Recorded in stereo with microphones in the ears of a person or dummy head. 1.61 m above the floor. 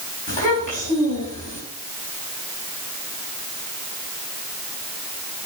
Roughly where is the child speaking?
Left.